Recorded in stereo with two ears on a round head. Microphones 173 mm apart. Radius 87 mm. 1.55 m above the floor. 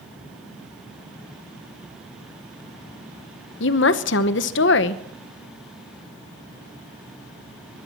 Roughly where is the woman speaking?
Left.